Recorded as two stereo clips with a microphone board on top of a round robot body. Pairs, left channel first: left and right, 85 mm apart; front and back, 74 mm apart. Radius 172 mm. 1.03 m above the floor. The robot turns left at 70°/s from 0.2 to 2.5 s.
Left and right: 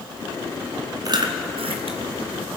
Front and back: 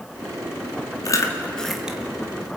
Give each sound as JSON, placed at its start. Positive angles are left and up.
{"t": 1.1, "sound": "chewing", "azimuth_deg": -40, "distance_m": 1.5}